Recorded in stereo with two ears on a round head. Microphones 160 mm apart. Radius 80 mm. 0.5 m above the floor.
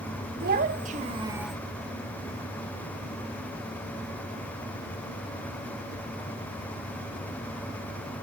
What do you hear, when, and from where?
0.4 s a child speaking: 55° right (ahead or behind), 1.8 m; by 1.6 s 5° left (ahead or behind), 0.7 m